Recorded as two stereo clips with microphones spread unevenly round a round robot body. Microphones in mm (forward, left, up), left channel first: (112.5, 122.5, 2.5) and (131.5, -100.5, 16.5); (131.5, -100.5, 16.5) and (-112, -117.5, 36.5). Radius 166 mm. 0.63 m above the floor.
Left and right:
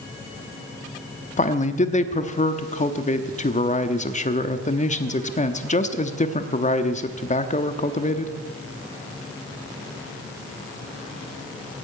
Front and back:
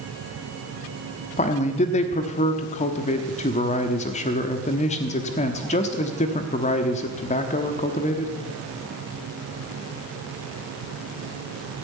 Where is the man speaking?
55° left, 1.0 m.